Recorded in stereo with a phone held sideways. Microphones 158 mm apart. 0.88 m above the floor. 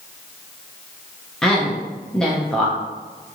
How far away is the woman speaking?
About 0.7 m.